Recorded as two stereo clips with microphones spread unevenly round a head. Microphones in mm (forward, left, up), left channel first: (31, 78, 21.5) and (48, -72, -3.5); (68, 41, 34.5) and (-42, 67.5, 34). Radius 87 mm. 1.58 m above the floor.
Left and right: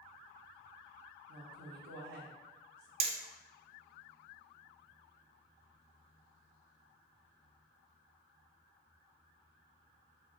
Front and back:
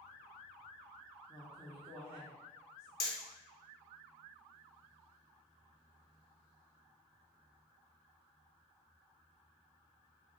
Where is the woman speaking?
110° right, 1.0 m.